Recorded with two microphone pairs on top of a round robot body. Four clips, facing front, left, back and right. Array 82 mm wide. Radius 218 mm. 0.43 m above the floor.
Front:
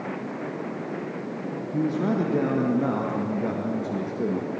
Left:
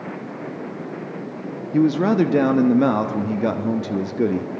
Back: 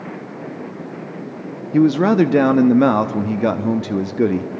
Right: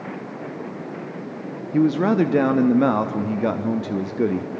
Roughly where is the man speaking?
Behind.